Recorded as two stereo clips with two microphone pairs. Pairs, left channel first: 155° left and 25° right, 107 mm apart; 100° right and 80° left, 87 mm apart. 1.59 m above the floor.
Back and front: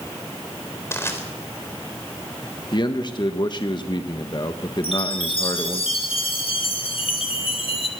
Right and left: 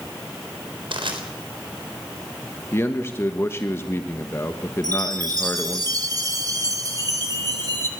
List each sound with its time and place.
0.9 s crushing: 90° left, 3.5 m
2.7 s a man speaking: 165° right, 1.4 m
4.8 s a chime: 125° left, 2.5 m